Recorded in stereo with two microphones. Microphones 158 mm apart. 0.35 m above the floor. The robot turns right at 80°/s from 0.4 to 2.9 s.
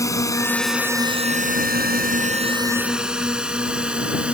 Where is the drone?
20° left (ahead or behind); by 4.3 s 5° right (ahead or behind).